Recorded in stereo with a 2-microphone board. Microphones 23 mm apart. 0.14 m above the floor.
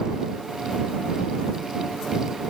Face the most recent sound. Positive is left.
No sound to turn to.